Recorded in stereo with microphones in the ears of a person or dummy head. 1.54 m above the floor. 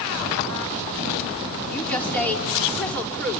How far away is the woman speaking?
About 4.5 m.